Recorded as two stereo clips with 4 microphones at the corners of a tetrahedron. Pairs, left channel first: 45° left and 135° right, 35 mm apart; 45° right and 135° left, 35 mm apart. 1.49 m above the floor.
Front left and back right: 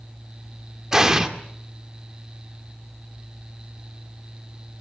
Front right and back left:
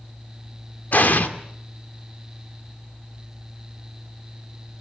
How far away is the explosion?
About 1.8 m.